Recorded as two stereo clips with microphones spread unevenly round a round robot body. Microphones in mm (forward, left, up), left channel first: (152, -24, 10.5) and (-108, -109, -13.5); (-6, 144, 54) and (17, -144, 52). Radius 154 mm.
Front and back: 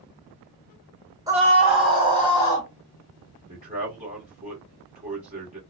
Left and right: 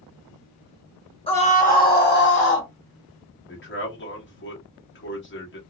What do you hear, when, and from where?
1.3 s a scream: 145° left, 1.4 m; by 2.7 s 95° left, 1.7 m
3.5 s a man speaking: 135° left, 1.4 m